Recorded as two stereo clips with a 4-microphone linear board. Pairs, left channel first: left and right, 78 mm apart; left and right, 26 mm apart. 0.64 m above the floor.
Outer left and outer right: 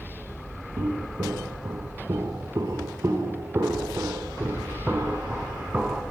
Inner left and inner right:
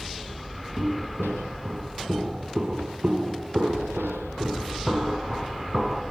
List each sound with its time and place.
0.8 s footsteps: 55° right (ahead or behind), 4 m; by 6.0 s 10° right (ahead or behind), 3 m